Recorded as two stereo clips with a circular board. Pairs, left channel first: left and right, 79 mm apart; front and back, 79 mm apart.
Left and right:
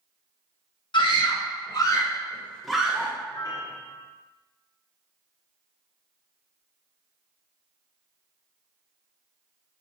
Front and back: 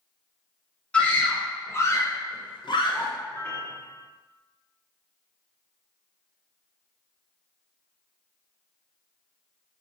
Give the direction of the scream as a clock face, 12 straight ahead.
10 o'clock.